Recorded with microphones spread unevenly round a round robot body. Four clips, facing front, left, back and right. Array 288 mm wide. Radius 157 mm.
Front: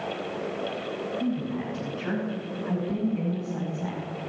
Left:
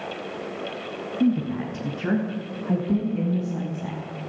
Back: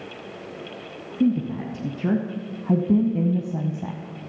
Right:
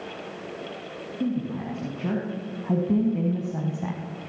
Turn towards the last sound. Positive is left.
turn(degrees=-155)